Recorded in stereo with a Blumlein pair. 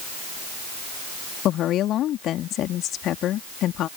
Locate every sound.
1.4 s a woman speaking: 30° left